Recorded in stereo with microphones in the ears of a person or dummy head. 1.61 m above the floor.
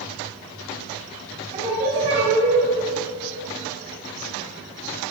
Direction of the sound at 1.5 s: 35° right (ahead or behind).